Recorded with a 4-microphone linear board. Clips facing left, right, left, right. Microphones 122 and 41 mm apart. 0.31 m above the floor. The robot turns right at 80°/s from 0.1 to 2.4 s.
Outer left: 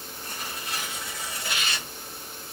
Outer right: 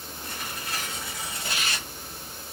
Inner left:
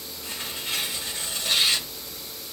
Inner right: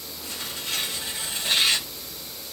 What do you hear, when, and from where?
0.2 s tearing paper: 120° left, 1.8 m; by 1.9 s 110° right, 1.8 m